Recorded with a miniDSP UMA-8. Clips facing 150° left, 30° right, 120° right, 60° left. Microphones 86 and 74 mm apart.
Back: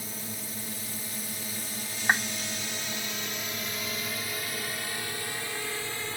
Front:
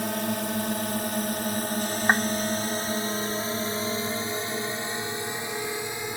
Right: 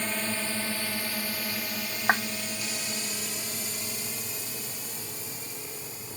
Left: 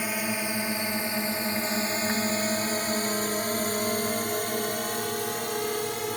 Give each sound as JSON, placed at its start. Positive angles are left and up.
{"t": 0.0, "sound": "a drone", "azimuth_deg": -20}
{"t": 2.1, "sound": "a clap", "azimuth_deg": -95}